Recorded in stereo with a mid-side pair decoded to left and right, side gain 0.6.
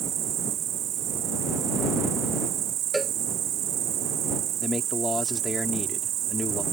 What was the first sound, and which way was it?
An insect, 55° right.